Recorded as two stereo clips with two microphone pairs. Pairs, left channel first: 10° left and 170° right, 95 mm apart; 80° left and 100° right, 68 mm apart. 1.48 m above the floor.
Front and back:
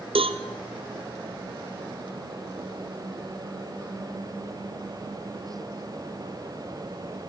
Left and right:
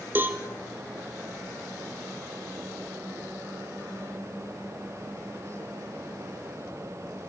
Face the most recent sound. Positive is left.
turn(degrees=-160)